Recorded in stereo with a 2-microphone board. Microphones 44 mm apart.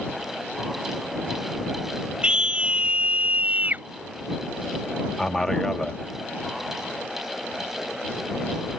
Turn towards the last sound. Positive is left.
turn(degrees=5)  # may be behind; listen again after turning